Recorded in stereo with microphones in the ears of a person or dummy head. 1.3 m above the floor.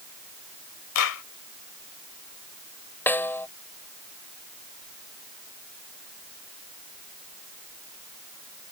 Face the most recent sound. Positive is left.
turn(degrees=5)  # may be behind; listen again after turning